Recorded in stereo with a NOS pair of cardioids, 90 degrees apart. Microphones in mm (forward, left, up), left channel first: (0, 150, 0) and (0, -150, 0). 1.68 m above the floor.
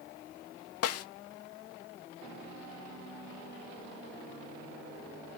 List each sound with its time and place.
0.8 s a snare drum: 60° left, 0.5 m